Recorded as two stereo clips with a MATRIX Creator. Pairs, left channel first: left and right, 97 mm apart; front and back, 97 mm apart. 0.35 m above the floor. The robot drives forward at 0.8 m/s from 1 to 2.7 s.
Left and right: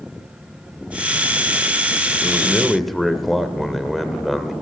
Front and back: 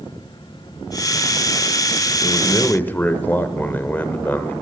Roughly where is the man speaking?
Ahead.